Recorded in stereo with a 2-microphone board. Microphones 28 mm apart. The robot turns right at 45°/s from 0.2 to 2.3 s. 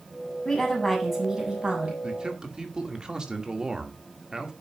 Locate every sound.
0.5 s a woman speaking: 155° left, 7.5 m; by 1.9 s 140° right, 7.5 m
2.0 s a man speaking: 40° right (ahead or behind), 2 m; by 4.5 s 30° right (ahead or behind), 2 m